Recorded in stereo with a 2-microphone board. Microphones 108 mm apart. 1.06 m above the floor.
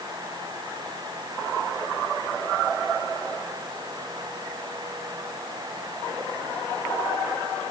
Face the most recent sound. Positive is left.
No sound to turn to.